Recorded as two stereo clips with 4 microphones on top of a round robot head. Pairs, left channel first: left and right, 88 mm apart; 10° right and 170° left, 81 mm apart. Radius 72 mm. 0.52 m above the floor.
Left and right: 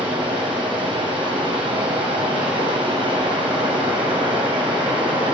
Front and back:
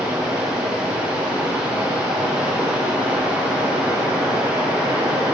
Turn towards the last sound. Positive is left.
turn(degrees=-110)